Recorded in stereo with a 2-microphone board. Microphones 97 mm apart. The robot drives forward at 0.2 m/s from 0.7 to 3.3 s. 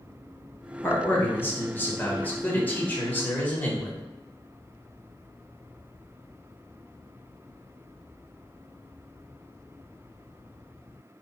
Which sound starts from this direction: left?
A man speaking, at 0.8 s.